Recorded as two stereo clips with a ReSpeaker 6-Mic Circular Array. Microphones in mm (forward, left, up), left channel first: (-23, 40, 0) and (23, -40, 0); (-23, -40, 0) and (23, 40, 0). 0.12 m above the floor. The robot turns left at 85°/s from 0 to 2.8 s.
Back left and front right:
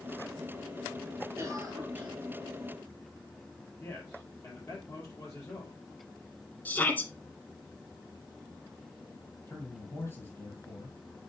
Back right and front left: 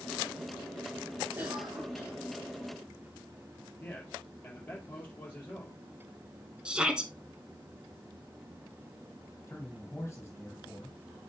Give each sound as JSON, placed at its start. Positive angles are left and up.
{"t": 1.4, "sound": "a cough", "azimuth_deg": -10, "distance_m": 1.7}
{"t": 3.8, "sound": "a man speaking", "azimuth_deg": 170, "distance_m": 3.0}
{"t": 6.7, "sound": "a shout", "azimuth_deg": 120, "distance_m": 1.3}
{"t": 9.5, "sound": "a man speaking", "azimuth_deg": 180, "distance_m": 4.0}